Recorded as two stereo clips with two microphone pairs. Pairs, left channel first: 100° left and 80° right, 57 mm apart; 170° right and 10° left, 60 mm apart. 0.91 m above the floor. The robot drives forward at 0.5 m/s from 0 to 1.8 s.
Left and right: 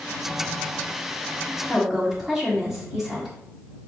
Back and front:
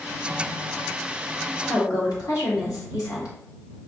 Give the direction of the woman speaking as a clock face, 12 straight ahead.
5 o'clock.